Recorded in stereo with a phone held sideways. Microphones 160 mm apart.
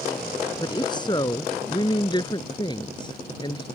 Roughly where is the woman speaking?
Left.